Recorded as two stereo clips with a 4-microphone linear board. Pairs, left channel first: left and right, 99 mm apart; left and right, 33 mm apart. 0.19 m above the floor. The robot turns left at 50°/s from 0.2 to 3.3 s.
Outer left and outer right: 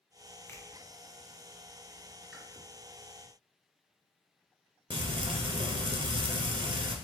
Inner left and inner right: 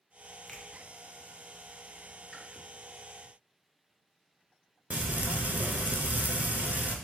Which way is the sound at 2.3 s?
Centre (ahead or behind).